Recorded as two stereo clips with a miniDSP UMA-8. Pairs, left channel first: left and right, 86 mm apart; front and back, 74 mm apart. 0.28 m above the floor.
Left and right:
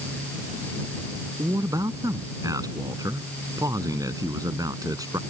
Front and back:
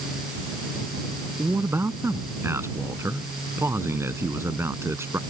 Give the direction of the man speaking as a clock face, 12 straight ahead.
4 o'clock.